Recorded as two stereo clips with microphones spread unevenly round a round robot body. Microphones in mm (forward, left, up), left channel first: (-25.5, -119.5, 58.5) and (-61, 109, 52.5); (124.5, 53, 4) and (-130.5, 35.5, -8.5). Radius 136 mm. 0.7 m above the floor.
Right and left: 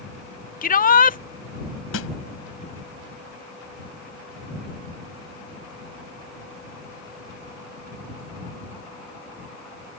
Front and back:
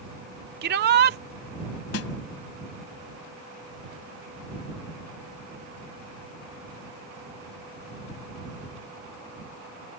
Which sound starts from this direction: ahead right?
A snare drum, at 1.9 s.